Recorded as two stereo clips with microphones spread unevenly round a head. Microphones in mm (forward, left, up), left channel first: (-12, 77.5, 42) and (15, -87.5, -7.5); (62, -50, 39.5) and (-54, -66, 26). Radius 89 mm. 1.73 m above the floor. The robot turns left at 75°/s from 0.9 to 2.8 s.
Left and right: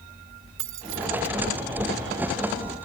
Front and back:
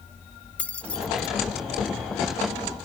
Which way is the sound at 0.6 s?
70° right.